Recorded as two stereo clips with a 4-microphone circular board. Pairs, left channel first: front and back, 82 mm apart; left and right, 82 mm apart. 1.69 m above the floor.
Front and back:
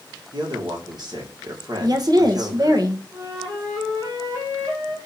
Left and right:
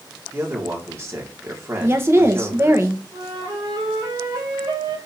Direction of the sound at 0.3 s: 145° right.